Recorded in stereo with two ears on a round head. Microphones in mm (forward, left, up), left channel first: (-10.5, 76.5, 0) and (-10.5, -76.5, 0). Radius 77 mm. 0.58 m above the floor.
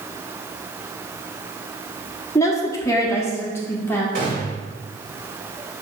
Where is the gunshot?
45° right (ahead or behind), 2 m.